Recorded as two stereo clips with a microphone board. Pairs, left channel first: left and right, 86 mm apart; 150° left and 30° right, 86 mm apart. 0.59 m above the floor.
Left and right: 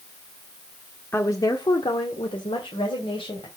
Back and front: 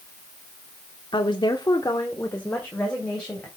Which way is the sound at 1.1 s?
150° left.